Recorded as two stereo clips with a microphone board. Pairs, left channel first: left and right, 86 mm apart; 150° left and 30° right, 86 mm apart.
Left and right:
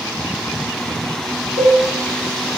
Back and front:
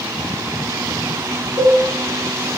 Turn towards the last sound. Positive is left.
turn(degrees=-85)